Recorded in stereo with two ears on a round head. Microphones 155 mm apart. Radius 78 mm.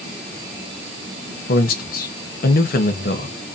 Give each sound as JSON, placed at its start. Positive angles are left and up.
{"t": 1.5, "sound": "a man speaking", "side_deg": 55, "distance_m": 0.7}